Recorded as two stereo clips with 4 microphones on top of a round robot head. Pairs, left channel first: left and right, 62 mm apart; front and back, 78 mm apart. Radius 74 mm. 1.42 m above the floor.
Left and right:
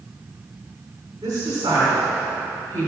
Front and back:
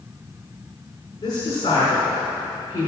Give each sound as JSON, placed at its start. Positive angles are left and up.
{"t": 1.2, "sound": "a woman speaking", "azimuth_deg": -50, "distance_m": 4.5}